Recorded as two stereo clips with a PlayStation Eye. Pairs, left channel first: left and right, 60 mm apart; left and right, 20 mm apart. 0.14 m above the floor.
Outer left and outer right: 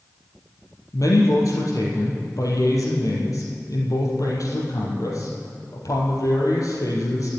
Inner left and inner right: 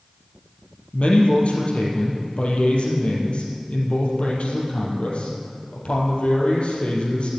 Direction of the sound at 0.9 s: 70° left (ahead or behind).